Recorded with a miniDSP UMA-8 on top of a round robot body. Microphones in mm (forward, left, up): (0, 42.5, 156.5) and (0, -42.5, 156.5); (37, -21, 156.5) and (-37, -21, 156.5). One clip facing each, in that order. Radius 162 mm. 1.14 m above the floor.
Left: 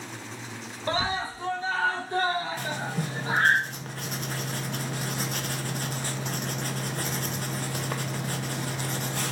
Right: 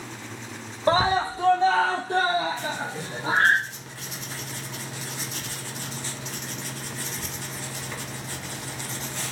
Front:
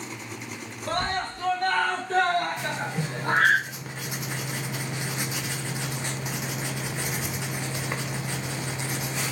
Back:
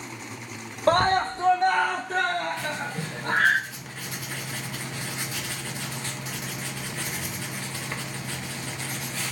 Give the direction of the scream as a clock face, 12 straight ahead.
5 o'clock.